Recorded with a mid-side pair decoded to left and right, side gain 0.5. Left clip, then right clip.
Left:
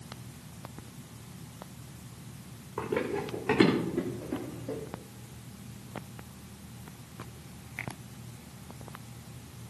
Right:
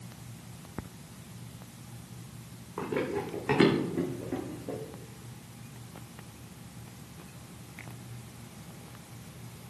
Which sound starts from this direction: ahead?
Running footsteps, at 2.8 s.